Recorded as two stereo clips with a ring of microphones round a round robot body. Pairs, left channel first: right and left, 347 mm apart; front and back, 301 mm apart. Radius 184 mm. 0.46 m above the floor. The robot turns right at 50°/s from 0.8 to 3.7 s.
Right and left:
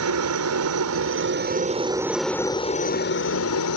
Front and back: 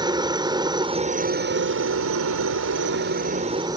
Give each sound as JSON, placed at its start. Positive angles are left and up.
{"t": 0.0, "sound": "a helicopter", "azimuth_deg": 110}